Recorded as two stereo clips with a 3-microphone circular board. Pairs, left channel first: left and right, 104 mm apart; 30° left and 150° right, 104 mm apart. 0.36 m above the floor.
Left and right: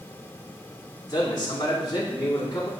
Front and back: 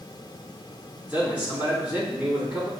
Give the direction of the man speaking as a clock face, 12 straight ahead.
7 o'clock.